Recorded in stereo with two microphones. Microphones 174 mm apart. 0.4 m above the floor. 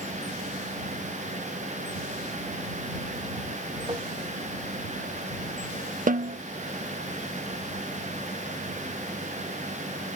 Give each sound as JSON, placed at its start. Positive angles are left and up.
{"t": 3.9, "sound": "tapping", "side_deg": -30}
{"t": 6.1, "sound": "a snare drum", "side_deg": -50}